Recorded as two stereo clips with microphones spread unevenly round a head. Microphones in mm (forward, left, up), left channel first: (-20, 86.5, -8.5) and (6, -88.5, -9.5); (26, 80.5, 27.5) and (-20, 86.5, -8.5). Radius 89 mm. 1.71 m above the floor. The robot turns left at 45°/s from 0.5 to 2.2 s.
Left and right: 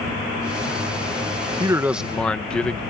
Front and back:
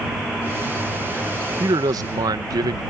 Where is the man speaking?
150° right; by 2.8 s 175° right.